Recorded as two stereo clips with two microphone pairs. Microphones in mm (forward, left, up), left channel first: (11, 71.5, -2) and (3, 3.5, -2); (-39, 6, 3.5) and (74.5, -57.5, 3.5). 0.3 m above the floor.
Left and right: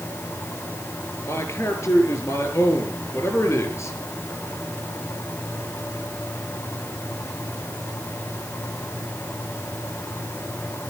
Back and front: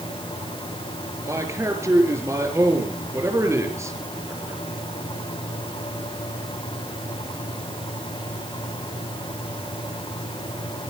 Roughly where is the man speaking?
Ahead left.